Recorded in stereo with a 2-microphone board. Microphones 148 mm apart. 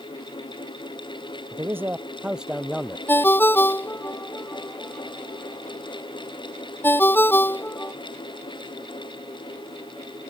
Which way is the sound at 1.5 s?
20° right (ahead or behind).